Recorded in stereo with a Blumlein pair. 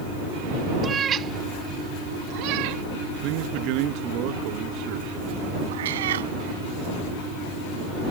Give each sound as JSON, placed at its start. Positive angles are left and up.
{"t": 0.8, "sound": "a cat meowing", "azimuth_deg": -20}
{"t": 3.2, "sound": "a man speaking", "azimuth_deg": -40}
{"t": 5.7, "sound": "a cat meowing", "azimuth_deg": -60}